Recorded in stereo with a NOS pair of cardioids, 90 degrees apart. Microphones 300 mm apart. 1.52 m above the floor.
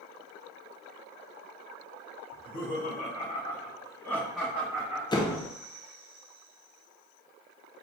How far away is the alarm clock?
No alarm clock in this recording.